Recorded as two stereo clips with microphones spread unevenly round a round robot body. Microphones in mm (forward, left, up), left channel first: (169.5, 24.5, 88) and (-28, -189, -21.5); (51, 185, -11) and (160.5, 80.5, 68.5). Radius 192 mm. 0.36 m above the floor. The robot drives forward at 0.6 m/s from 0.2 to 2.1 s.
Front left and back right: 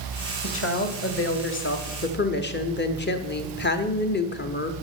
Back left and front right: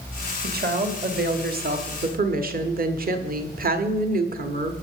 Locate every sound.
0.4 s a woman speaking: 5° right, 2 m; by 4.7 s 15° right, 1.3 m